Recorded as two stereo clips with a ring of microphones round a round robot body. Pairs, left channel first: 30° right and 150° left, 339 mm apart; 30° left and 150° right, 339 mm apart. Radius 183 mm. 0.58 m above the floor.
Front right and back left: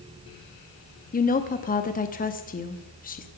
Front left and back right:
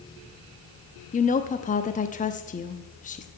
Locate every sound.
1.1 s a woman speaking: 5° right, 0.7 m